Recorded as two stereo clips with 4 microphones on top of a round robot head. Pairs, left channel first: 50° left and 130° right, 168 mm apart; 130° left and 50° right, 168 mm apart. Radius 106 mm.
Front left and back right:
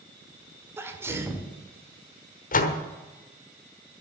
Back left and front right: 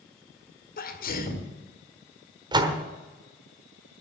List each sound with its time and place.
0.8 s a sneeze: 155° left, 2 m
2.5 s a door slam: 15° left, 1.3 m